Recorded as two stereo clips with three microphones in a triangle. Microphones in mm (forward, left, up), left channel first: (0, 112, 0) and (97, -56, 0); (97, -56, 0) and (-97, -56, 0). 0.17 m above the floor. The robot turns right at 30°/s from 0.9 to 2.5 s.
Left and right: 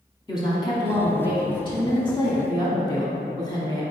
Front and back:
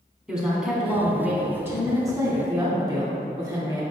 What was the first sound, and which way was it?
A woman speaking, 100° left.